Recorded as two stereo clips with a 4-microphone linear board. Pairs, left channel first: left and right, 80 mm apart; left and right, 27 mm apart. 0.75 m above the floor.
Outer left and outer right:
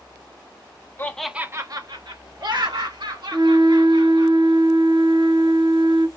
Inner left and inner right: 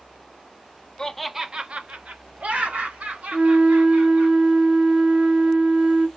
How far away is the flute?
About 3.5 m.